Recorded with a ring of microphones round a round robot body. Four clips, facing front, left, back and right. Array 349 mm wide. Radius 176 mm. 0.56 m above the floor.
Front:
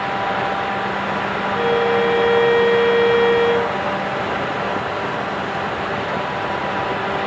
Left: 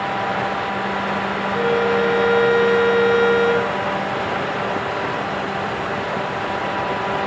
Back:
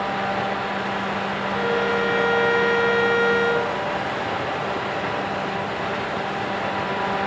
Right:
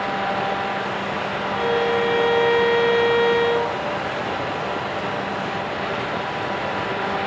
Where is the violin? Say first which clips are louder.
Left 2 dB, front 5 dB; 115° left, 3 m.